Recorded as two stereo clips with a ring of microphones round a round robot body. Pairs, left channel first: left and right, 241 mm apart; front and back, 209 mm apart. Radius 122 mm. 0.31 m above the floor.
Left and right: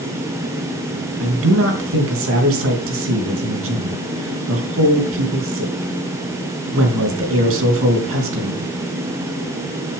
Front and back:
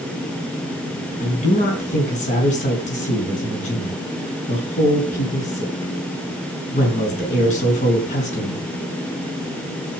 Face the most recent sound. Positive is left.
turn(degrees=-60)